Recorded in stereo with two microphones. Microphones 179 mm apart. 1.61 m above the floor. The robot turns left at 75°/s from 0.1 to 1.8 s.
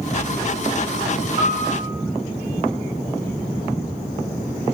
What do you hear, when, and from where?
1.4 s a piano: 135° right, 5.5 m; by 1.9 s 170° right, 5.5 m